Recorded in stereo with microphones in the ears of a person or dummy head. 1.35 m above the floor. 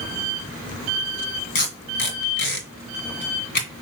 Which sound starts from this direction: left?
Tape being pulled, at 1.6 s.